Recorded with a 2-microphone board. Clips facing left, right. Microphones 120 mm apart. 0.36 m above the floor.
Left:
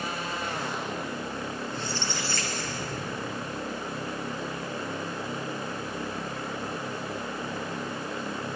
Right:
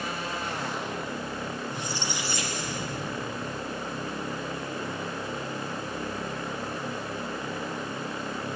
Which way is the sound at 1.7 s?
15° right (ahead or behind).